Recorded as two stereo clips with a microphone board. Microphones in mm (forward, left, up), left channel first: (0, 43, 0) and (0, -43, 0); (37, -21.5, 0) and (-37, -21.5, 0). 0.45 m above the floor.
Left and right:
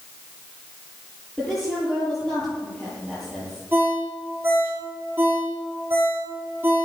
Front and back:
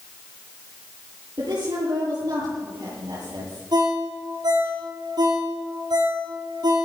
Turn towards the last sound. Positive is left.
turn(degrees=-160)